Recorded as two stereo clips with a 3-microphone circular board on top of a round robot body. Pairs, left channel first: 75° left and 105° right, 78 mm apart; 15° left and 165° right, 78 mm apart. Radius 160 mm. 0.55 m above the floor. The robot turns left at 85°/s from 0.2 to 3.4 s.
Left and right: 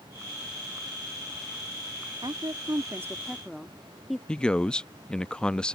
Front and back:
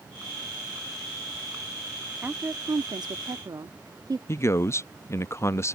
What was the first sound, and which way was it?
A woman speaking, 95° right.